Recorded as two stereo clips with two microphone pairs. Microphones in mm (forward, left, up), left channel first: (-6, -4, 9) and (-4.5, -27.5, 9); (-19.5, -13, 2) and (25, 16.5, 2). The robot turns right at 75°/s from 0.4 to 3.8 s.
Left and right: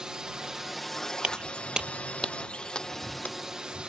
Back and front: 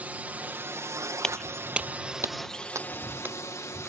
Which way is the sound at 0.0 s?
25° right.